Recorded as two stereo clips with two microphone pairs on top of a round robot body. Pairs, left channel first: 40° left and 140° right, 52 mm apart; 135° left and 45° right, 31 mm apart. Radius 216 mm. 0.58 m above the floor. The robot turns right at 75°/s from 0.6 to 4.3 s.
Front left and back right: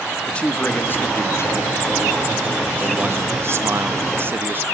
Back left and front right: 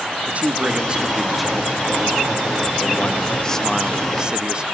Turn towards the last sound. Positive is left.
turn(degrees=-100)